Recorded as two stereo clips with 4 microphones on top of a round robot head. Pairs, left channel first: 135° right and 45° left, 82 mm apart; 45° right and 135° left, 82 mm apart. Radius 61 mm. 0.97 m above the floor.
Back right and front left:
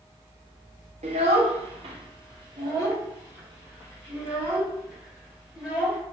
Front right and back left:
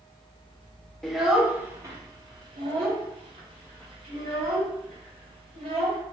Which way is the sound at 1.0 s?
40° left.